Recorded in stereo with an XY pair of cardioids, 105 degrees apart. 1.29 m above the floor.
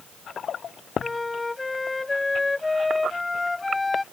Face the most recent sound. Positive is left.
turn(degrees=20)